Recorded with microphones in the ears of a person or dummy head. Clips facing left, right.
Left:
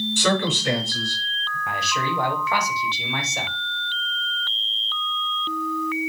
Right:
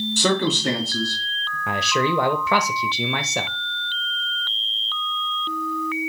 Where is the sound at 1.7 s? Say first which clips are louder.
Right 6 dB; 60° right (ahead or behind), 0.8 m.